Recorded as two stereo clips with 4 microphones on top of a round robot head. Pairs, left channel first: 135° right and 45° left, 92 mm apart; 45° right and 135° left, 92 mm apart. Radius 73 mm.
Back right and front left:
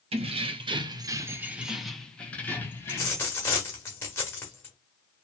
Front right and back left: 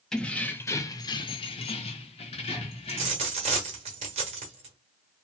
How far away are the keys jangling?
About 0.8 m.